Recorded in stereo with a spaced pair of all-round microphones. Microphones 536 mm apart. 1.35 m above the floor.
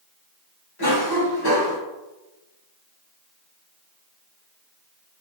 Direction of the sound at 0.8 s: 45° left (ahead or behind).